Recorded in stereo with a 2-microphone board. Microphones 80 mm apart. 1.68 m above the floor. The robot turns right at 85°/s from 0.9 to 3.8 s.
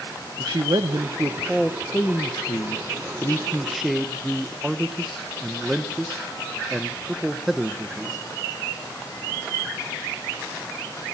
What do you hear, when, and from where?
0.4 s a man speaking: 65° right, 1.4 m; by 8.2 s straight behind, 1.4 m